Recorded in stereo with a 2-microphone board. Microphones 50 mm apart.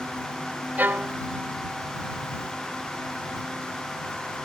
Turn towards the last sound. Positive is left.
turn(degrees=-40)  # may be behind; listen again after turning